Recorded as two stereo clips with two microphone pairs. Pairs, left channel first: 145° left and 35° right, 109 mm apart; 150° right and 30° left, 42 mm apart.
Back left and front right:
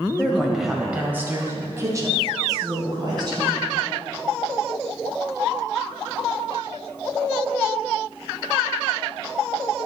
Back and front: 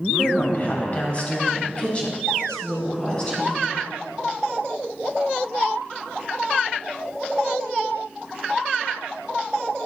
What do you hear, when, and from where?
0.2 s a woman speaking: 145° right, 1.1 m; by 3.6 s 80° right, 3 m